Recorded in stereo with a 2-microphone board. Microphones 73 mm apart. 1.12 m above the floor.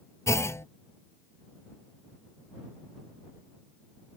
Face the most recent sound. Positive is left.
turn(degrees=40)  # may be behind; listen again after turning